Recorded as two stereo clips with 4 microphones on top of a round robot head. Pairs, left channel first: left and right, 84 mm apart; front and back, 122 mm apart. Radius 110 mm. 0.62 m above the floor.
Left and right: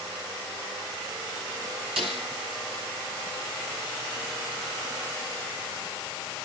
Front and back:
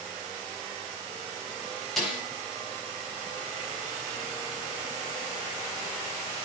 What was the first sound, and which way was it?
A snare drum, 90° right.